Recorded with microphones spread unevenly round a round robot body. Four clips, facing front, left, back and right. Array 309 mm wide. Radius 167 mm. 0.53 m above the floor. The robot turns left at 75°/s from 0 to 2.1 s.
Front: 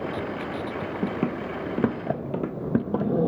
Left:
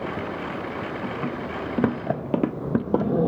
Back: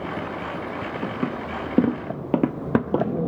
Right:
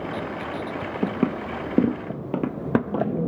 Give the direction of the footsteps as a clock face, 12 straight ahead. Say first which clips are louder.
Right 4 dB, front 1 dB; 2 o'clock.